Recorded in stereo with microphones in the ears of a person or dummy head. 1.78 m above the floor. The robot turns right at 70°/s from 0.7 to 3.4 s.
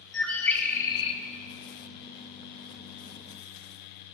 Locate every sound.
0.1 s a bird: 15° left, 0.8 m; by 1.2 s 50° left, 0.8 m